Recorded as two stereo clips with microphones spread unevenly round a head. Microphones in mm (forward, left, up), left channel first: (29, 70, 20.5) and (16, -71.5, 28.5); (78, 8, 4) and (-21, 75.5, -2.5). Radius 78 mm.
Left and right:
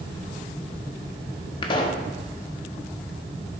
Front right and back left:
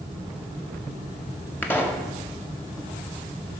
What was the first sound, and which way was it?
A pop, 35° left.